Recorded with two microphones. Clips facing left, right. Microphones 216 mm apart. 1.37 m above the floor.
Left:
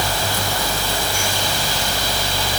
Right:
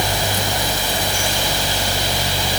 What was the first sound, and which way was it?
Only background noise.